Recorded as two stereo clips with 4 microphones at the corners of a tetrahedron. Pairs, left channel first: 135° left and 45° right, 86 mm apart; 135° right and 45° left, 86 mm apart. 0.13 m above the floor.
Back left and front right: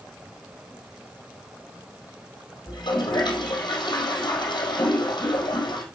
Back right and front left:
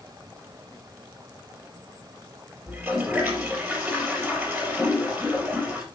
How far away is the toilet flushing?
About 4 m.